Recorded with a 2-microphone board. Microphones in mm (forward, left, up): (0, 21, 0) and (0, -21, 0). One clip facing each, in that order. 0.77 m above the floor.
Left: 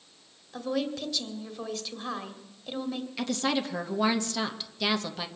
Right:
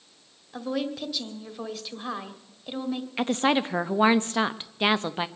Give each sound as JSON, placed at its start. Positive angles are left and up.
{"t": 0.5, "sound": "a woman speaking", "side_deg": -10, "distance_m": 1.8}
{"t": 3.2, "sound": "a woman speaking", "side_deg": -35, "distance_m": 0.8}